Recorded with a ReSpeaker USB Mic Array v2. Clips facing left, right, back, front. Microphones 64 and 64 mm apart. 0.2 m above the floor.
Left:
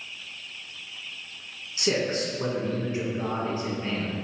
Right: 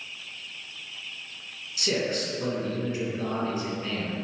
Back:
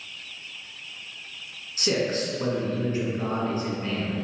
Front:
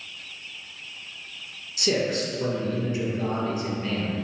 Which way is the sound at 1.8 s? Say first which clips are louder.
Left 2 dB, front 1 dB; 135° left.